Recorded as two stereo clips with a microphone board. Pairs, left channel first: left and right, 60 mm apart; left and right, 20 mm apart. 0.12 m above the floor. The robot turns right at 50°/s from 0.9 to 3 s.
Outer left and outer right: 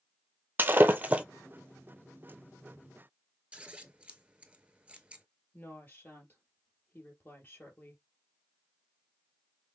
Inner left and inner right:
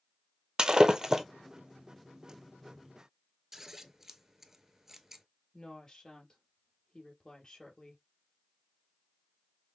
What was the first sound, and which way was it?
Breaking glass, 35° right (ahead or behind).